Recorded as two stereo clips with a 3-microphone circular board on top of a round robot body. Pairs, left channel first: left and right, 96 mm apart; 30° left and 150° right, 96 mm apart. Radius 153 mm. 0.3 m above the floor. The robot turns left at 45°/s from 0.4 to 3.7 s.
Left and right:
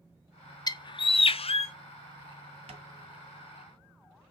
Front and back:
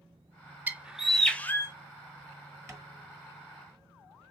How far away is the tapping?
About 1.7 m.